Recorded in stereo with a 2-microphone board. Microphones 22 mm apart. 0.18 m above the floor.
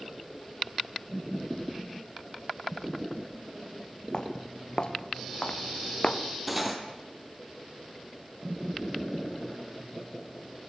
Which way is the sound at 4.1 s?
40° left (ahead or behind).